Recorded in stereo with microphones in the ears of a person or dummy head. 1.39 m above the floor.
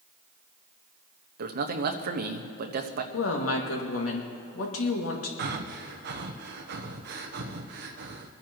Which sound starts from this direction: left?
A woman speaking, at 3.1 s.